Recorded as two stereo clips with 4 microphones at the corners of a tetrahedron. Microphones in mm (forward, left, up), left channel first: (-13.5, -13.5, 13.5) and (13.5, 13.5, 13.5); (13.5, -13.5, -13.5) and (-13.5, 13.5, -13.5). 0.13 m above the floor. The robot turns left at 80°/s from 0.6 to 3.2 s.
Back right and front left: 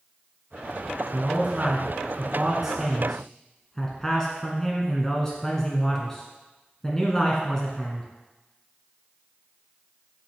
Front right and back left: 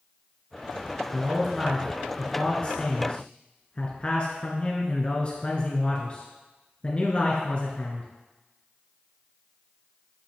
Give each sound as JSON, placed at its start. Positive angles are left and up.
{"t": 1.1, "sound": "a man speaking", "azimuth_deg": 95, "distance_m": 1.5}